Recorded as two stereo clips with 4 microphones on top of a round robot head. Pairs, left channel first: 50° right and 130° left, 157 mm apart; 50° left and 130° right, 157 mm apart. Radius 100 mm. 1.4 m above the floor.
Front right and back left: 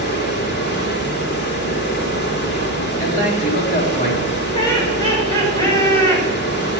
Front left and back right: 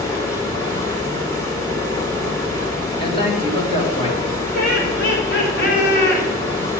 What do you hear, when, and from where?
0.0 s running water: 25° right, 3 m
3.0 s a man speaking: 10° right, 3 m
4.5 s laughter: 20° left, 6 m